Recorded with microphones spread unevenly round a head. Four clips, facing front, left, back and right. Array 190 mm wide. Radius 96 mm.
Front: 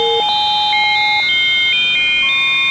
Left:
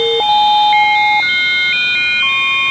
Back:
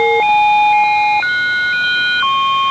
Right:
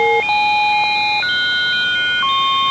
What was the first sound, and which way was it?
Only background noise.